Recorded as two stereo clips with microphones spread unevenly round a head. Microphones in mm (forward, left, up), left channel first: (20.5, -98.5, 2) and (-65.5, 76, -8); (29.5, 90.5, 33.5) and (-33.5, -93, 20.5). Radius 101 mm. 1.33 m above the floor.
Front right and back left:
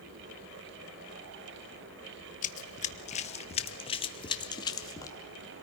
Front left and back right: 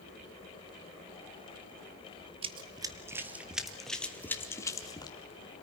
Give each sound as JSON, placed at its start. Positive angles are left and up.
{"t": 2.4, "sound": "running footsteps", "azimuth_deg": -55, "distance_m": 1.6}